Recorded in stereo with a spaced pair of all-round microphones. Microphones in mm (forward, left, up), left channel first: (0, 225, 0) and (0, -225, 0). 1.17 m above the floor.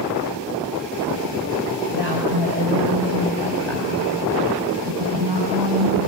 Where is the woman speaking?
85° right, 4 m; by 6.1 s 75° right (ahead or behind), 8.5 m.